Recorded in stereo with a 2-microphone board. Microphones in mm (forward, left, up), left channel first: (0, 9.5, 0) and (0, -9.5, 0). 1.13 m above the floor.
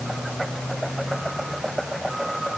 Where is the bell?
No bell in this recording.